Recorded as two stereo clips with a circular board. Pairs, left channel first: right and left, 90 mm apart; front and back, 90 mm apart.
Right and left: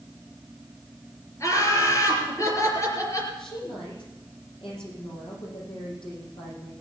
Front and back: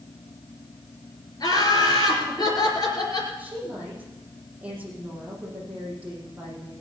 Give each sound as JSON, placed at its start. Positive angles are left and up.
{"t": 1.4, "sound": "laughter", "azimuth_deg": -40, "distance_m": 4.0}
{"t": 3.4, "sound": "a woman speaking", "azimuth_deg": -105, "distance_m": 7.5}